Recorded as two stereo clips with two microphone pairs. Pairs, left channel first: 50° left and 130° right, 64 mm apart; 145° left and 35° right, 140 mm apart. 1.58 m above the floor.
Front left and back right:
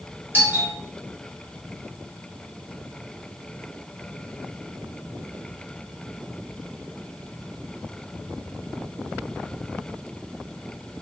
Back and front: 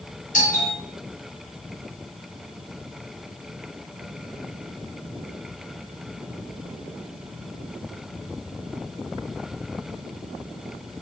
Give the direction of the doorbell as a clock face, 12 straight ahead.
6 o'clock.